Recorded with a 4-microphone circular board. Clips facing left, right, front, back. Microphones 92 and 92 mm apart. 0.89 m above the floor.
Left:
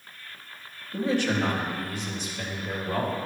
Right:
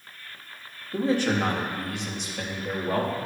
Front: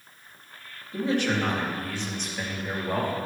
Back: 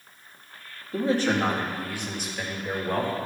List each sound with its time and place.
0.9 s a man speaking: 140° right, 1.7 m; by 3.2 s 75° right, 2 m